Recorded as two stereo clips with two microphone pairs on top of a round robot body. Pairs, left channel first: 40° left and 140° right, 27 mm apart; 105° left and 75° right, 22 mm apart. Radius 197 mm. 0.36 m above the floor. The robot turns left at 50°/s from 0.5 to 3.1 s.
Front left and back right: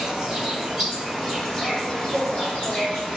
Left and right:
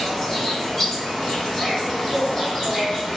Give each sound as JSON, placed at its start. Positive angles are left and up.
{"t": 0.0, "sound": "an insect", "azimuth_deg": 155, "distance_m": 1.7}